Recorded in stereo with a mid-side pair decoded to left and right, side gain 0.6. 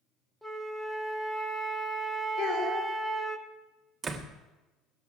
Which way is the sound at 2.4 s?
70° left.